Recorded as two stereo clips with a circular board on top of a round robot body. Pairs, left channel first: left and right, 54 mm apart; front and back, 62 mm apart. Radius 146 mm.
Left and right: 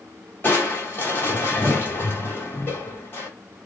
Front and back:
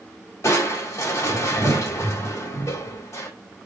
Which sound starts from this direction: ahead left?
Crushing, at 0.4 s.